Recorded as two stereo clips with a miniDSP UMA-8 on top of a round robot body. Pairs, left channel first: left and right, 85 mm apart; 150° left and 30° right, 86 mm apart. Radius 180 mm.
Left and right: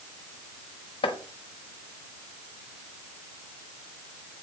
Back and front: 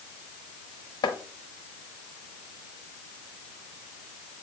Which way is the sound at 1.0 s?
110° left.